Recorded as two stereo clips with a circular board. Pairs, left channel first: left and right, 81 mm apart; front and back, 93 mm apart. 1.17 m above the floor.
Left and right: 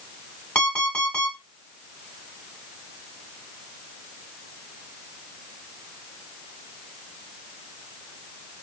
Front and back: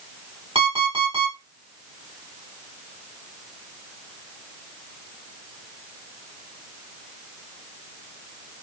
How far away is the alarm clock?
About 2 m.